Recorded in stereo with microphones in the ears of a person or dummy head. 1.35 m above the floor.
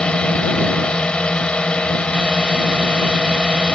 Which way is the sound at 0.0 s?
Centre (ahead or behind).